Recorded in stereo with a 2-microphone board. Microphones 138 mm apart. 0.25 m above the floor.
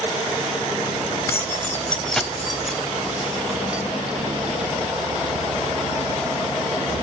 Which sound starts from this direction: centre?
Keys jangling, at 1.3 s.